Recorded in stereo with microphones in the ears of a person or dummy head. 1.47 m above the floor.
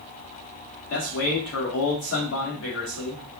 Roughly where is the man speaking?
Left.